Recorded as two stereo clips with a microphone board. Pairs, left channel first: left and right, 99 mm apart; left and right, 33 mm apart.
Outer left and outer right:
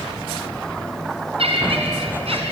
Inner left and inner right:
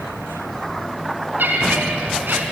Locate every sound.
1.4 s laughter: 70° right (ahead or behind), 4 m; by 2.4 s 75° right (ahead or behind), 3.5 m